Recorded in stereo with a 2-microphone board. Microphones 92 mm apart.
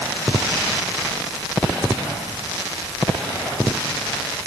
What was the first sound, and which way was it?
Only background noise.